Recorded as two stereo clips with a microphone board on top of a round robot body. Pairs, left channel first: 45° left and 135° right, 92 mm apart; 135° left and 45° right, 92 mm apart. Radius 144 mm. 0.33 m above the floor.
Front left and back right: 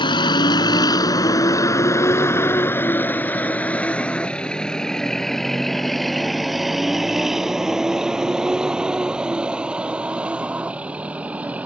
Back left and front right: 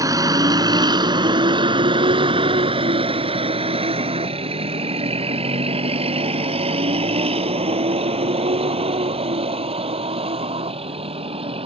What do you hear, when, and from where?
0.0 s a vehicle: 10° left; by 11.7 s 60° right